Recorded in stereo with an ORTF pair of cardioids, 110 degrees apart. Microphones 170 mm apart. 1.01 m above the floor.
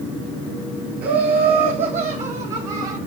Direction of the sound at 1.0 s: 70° right.